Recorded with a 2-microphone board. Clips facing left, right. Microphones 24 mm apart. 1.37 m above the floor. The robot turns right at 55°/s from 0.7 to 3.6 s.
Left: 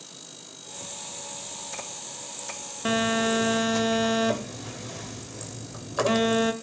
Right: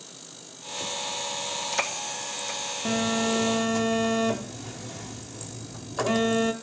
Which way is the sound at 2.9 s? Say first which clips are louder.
Left 2 dB; 110° left.